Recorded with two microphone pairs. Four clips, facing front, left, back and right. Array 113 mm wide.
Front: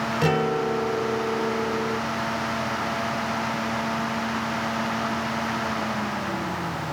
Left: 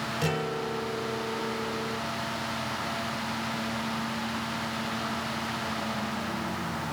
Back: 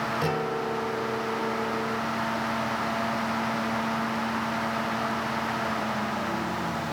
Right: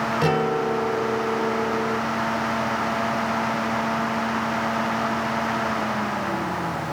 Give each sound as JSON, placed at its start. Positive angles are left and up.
{"t": 0.2, "sound": "a guitar", "azimuth_deg": -70}